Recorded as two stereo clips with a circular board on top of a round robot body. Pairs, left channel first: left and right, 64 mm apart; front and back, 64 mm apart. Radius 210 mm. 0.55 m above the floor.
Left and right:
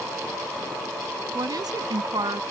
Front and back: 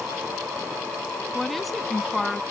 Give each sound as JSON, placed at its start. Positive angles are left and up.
{"t": 1.3, "sound": "a woman speaking", "azimuth_deg": -90}